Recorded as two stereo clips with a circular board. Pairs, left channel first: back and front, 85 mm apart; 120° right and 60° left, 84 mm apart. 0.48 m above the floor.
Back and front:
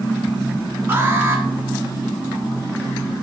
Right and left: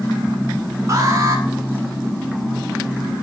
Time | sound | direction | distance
0.9 | an alarm | 45° left | 2.5 m